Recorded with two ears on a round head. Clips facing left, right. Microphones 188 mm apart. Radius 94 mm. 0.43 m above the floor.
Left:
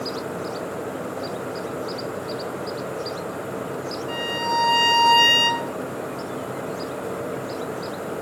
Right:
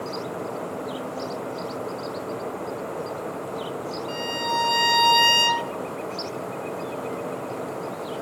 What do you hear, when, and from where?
4.1 s a violin: 15° right (ahead or behind), 0.7 m